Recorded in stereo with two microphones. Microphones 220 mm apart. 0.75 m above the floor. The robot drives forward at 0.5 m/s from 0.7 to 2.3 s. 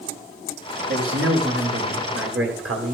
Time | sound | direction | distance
0.9 | a man speaking | 65° right (ahead or behind) | 2 m